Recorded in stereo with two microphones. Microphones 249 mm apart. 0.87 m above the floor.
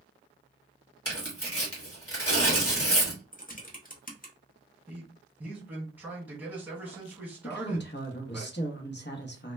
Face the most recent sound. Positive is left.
turn(degrees=45)  # may be behind; listen again after turning